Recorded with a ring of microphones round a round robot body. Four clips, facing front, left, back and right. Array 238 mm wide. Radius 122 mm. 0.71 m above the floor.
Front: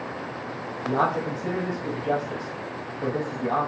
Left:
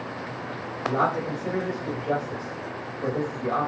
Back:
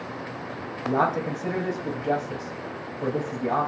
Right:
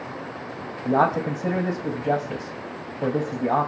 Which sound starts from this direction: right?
A man speaking, at 0.8 s.